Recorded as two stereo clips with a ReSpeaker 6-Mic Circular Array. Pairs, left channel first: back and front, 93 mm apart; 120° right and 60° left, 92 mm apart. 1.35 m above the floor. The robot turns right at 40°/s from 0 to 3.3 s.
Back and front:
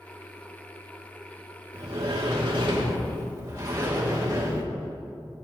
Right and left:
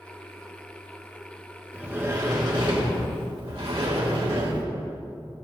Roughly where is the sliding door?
Ahead.